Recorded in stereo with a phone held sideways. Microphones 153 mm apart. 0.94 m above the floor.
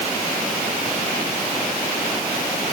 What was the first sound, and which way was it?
Only background noise.